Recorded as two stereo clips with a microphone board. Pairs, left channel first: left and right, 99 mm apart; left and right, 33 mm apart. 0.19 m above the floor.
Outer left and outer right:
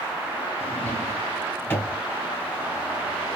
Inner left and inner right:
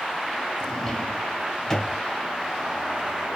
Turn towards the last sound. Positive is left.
turn(degrees=20)  # may be behind; listen again after turning